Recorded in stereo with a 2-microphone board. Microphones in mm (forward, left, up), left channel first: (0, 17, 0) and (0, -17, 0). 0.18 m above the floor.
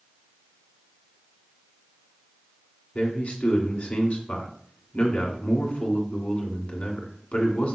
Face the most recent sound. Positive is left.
turn(degrees=45)  # may be behind; listen again after turning